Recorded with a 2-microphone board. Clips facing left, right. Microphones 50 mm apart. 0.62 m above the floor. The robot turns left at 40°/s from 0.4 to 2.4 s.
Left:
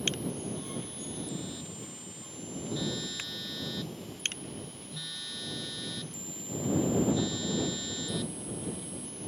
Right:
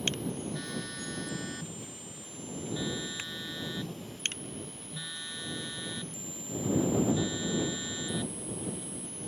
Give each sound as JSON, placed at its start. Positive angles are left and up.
{"t": 0.5, "sound": "a phone buzzing", "azimuth_deg": -80}